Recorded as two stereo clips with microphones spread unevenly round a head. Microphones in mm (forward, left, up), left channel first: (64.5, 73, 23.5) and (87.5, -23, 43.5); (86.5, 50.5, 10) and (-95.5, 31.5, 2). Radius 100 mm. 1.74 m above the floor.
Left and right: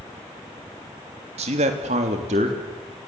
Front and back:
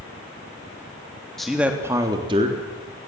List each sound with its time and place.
1.4 s a man speaking: 80° right, 3 m; by 3.1 s 120° right, 4.5 m